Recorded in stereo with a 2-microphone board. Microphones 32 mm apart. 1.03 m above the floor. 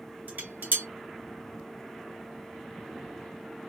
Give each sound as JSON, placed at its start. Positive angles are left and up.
{"t": 0.3, "sound": "dishes clattering", "side_deg": -75, "distance_m": 1.2}